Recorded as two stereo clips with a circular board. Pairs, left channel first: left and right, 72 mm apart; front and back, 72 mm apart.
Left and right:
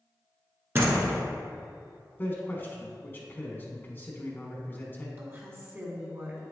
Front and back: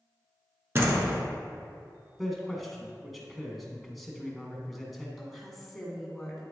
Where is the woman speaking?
85° right, 1.6 m.